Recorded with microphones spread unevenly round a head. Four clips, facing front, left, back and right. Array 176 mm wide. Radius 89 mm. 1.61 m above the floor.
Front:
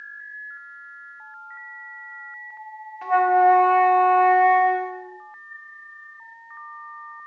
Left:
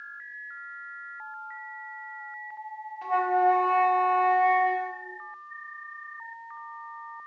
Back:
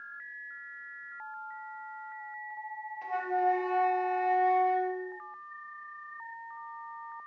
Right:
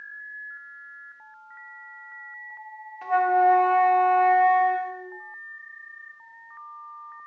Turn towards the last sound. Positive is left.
turn(degrees=-15)